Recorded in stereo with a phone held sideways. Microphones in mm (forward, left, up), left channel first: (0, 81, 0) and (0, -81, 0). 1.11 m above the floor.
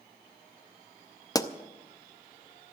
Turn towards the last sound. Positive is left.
turn(degrees=20)  # may be behind; listen again after turning